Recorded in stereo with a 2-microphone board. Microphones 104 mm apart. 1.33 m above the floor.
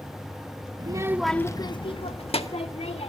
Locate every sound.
0.8 s a child speaking: 45° right (ahead or behind), 0.9 m; by 3.1 s 75° left (ahead or behind), 2.5 m